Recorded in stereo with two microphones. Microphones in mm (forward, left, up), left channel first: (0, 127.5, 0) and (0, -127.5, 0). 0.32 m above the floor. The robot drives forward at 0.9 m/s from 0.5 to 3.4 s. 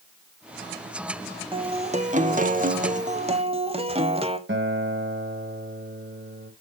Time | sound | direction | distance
1.5 | a guitar | 20° right (ahead or behind) | 1.2 m
4.5 | a guitar | 50° right (ahead or behind) | 1.5 m